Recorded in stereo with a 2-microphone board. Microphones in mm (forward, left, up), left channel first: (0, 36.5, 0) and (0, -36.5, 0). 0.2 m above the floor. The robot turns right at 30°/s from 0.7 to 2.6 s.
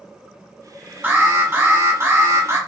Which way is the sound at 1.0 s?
130° right.